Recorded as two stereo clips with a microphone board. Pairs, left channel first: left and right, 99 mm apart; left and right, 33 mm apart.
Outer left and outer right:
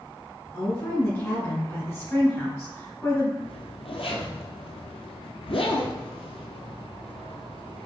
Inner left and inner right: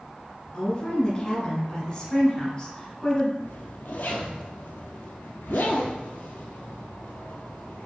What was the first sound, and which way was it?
A woman speaking, 30° left (ahead or behind).